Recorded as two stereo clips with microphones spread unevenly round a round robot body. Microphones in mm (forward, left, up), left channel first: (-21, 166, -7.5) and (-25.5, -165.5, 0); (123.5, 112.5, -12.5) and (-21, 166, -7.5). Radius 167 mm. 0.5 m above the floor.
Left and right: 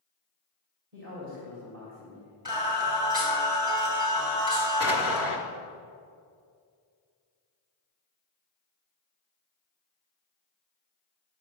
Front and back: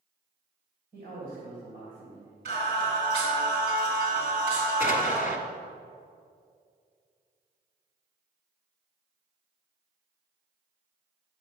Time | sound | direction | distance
0.9 | a man speaking | 140° right | 2.5 m
2.5 | singing | 170° right | 2.5 m
4.8 | an explosion | 20° right | 1.2 m